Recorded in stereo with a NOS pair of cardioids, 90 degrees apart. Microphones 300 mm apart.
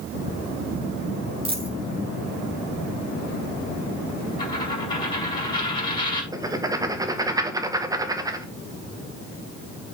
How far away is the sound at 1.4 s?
About 5 m.